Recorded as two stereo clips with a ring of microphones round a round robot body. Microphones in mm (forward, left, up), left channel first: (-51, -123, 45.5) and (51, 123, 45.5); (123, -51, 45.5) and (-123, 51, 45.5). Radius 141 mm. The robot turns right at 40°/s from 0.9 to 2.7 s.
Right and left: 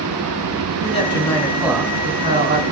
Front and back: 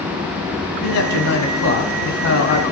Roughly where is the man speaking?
Ahead right.